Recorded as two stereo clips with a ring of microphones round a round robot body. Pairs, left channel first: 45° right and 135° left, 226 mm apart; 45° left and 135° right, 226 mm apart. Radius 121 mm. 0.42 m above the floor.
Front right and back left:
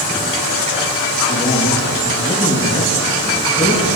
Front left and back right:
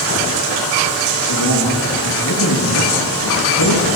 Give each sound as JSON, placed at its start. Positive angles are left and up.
{"t": 1.3, "sound": "a man speaking", "azimuth_deg": 30, "distance_m": 8.0}